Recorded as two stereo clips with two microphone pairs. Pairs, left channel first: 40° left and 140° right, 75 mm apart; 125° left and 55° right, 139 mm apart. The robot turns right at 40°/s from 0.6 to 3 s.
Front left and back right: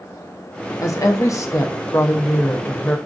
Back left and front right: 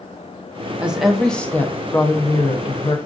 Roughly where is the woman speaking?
Ahead left.